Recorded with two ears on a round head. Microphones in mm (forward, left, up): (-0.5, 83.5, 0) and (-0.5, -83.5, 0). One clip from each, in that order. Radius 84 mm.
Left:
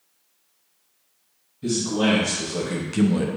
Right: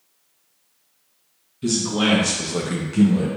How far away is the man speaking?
About 1.8 m.